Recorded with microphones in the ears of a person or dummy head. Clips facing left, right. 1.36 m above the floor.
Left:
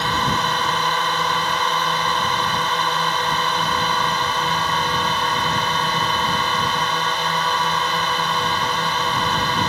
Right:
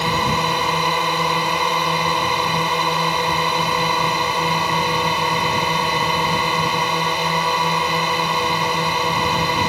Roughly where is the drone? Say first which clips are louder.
Right 2 dB; centre.